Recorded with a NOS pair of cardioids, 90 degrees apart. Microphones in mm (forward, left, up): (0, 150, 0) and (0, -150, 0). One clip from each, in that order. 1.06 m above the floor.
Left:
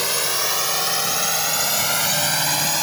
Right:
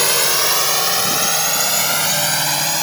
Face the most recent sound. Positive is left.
turn(degrees=-15)